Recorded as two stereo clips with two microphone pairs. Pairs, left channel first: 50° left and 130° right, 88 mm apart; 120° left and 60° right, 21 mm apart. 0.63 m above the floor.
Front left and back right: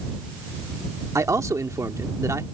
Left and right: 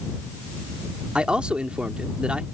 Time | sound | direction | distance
1.1 | a man speaking | 85° right | ?